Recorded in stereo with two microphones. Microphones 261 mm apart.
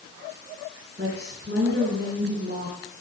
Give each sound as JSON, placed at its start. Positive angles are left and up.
{"t": 1.0, "sound": "a woman speaking", "side_deg": -40, "distance_m": 5.0}